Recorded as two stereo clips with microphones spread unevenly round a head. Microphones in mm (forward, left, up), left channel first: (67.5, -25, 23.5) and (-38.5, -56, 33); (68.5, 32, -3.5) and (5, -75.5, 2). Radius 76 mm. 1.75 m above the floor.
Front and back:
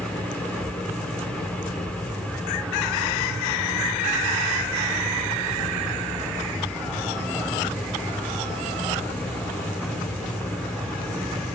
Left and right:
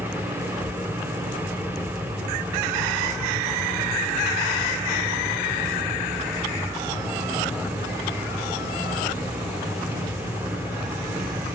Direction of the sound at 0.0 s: 60° right.